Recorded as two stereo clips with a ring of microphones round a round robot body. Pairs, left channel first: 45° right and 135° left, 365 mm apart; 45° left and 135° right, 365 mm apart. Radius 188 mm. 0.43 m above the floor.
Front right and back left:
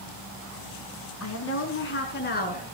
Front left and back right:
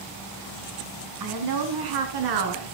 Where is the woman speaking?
100° right, 3.5 m; by 2.8 s 115° right, 5 m.